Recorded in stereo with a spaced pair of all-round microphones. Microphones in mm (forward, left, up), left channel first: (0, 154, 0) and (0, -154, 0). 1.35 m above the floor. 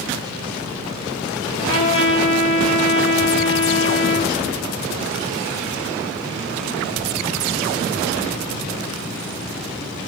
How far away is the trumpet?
About 2.5 m.